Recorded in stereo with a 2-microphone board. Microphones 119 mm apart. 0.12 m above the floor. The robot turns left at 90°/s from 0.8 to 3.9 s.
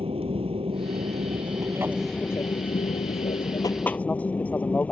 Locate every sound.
0.0 s an aircraft: 65° right; by 4.9 s 15° left